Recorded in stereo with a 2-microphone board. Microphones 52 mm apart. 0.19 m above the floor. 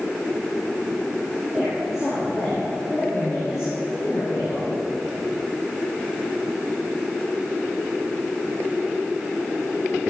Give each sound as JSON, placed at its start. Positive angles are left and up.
{"t": 1.5, "sound": "a woman speaking", "side_deg": -5, "distance_m": 5.5}